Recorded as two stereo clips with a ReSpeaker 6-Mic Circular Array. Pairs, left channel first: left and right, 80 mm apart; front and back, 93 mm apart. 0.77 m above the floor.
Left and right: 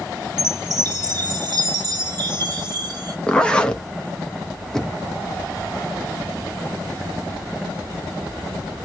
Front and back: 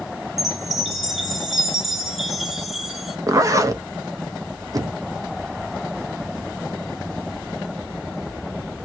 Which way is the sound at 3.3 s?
160° left.